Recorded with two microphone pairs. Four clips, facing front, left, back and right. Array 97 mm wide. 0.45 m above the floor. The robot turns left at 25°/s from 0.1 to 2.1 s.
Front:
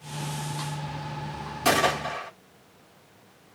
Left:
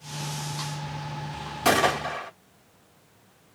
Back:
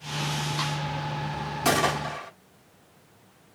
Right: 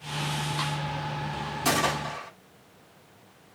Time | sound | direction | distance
1.6 | a gunshot | 90° left | 0.9 m